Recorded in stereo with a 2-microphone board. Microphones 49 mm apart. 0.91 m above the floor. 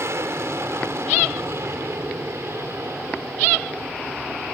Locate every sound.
0.0 s an aircraft: 60° right (ahead or behind)